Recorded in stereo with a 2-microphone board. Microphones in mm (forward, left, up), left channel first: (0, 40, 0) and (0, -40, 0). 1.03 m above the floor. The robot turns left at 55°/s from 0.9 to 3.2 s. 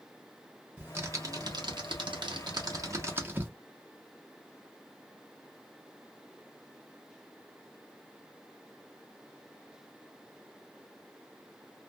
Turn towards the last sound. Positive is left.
turn(degrees=-25)  # may be behind; listen again after turning